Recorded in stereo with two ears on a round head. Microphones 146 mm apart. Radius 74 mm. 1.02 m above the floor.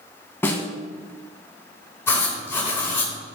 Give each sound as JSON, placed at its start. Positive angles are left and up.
{"t": 0.4, "sound": "a snare drum", "side_deg": 15, "distance_m": 1.3}
{"t": 2.1, "sound": "writing", "side_deg": 15, "distance_m": 2.5}